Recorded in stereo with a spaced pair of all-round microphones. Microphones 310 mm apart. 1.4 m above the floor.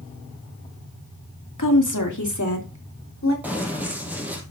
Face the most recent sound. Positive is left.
turn(degrees=-5)  # may be behind; listen again after turning